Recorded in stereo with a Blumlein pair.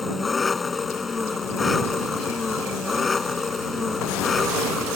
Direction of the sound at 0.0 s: 15° left.